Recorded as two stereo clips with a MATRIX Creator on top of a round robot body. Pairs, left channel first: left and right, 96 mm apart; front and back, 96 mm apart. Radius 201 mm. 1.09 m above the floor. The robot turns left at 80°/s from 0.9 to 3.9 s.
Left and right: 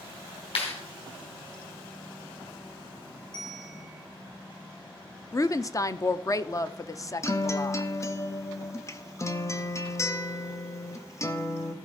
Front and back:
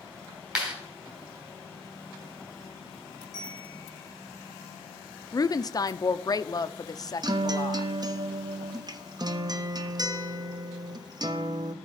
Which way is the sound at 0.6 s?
100° left.